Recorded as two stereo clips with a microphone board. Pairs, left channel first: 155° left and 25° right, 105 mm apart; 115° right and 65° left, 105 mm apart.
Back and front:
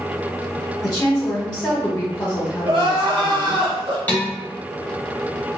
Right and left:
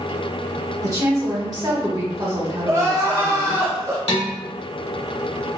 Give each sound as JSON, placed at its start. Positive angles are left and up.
{"t": 0.8, "sound": "a woman speaking", "azimuth_deg": 95, "distance_m": 1.1}
{"t": 2.6, "sound": "crying", "azimuth_deg": 10, "distance_m": 1.1}
{"t": 4.1, "sound": "dishes clattering", "azimuth_deg": -130, "distance_m": 1.6}